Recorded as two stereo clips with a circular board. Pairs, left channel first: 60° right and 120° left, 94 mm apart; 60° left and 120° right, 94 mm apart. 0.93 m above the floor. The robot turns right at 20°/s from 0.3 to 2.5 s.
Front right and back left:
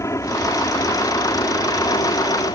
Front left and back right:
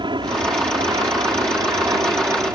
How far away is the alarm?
I don't hear an alarm.